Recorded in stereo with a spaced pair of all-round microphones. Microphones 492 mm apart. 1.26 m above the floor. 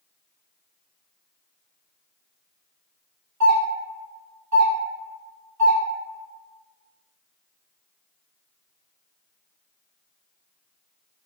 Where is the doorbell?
35° right (ahead or behind), 1.1 m.